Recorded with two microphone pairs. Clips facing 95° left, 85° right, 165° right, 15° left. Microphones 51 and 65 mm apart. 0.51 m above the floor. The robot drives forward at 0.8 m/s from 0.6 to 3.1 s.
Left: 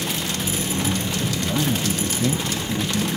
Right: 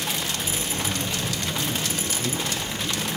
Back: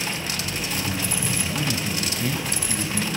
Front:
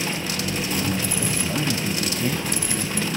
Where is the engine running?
45° left, 6 m; by 3.2 s 60° left, 5 m.